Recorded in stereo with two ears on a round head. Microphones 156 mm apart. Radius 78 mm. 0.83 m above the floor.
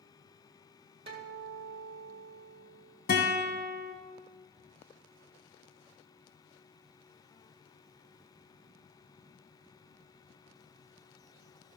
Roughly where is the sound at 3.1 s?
Left.